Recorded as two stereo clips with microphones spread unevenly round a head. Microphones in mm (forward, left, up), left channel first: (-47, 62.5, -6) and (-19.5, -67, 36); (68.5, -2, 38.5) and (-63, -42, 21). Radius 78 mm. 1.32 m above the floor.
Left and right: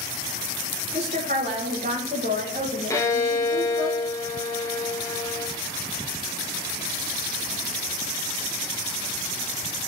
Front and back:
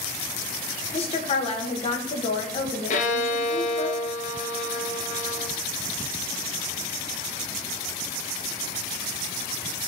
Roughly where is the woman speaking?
Ahead right.